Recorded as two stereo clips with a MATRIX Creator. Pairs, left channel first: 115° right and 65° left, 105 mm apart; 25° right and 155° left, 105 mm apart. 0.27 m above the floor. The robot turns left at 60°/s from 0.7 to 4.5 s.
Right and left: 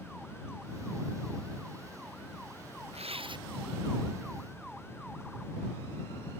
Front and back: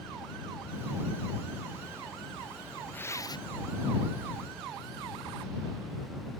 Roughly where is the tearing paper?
Ahead left.